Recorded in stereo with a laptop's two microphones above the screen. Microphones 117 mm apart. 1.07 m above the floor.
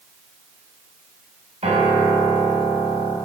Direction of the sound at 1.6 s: 70° right (ahead or behind).